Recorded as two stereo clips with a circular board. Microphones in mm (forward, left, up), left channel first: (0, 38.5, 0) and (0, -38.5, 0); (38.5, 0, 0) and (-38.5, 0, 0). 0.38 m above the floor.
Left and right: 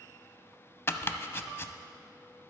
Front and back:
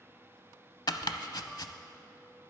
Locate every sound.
0.9 s chopping: 30° left, 0.5 m